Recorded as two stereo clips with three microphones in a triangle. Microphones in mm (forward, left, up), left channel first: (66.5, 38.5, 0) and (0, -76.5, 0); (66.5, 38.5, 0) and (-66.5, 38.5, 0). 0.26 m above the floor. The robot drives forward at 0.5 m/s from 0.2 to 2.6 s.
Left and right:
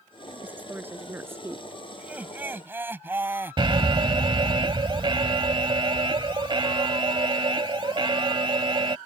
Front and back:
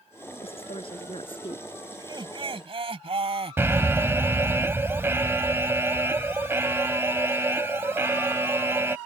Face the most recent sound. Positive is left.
turn(degrees=-120)